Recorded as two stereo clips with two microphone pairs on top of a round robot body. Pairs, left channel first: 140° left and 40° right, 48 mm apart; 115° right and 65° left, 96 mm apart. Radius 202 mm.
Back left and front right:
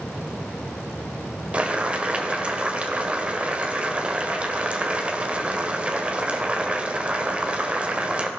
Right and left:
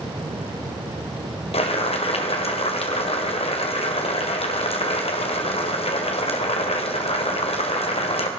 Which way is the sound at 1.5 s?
110° right.